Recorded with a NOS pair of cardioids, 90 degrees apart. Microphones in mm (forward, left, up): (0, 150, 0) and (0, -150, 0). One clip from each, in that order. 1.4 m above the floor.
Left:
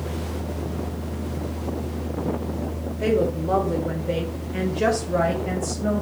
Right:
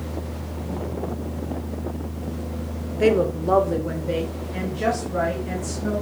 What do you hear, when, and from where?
3.0 s a woman speaking: 40° right, 1.0 m; by 6.0 s 45° left, 1.6 m